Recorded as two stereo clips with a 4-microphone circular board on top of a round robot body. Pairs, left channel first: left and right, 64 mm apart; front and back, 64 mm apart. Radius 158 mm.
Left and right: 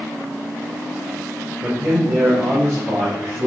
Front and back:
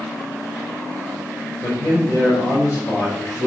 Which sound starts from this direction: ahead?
A man speaking, at 1.6 s.